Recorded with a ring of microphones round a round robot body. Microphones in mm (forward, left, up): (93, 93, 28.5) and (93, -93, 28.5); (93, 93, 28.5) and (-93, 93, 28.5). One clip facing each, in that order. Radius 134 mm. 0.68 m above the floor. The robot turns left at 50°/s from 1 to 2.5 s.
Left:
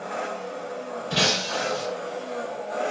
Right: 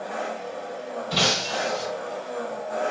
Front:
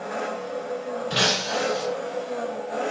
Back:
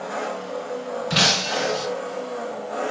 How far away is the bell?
I don't hear a bell.